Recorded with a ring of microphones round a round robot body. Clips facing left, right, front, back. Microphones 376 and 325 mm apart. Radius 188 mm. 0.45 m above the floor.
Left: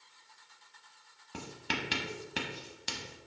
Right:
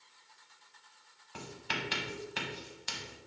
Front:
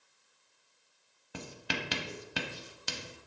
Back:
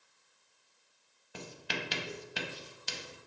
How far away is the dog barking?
I don't hear a dog barking.